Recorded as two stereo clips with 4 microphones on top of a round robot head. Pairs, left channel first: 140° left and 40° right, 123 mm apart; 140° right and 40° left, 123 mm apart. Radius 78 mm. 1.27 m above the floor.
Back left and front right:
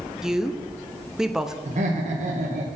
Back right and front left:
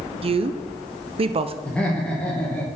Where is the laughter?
60° right, 1.4 m.